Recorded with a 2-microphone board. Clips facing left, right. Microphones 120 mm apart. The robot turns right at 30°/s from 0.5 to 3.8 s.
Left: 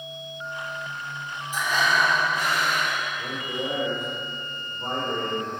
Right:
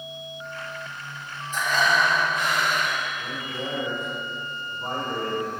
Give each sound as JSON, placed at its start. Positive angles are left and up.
{"t": 1.5, "sound": "breathing", "azimuth_deg": 10, "distance_m": 3.0}
{"t": 3.2, "sound": "a man speaking", "side_deg": 50, "distance_m": 4.0}